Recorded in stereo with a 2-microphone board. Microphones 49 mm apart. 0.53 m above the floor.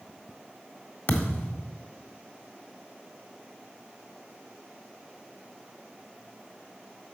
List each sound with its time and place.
1.1 s a thud: 50° left (ahead or behind), 1.5 m